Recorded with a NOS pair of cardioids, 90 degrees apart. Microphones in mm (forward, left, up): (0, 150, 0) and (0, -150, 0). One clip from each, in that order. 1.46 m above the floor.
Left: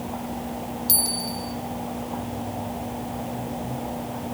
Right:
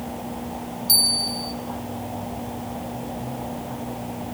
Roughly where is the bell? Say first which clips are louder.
Right 8 dB; ahead.